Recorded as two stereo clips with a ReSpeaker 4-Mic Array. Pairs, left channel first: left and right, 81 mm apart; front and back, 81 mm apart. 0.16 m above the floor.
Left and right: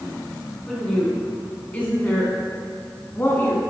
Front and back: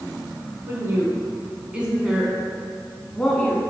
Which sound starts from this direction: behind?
A woman speaking, at 0.7 s.